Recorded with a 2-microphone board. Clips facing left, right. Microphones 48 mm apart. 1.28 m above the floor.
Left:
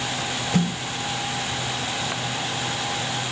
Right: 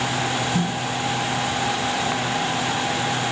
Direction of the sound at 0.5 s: 85° left.